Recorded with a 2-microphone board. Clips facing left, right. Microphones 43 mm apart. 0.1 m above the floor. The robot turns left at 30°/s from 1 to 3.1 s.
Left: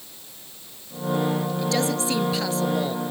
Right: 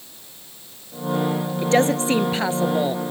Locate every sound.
1.6 s a woman speaking: 100° right; by 3.0 s 140° right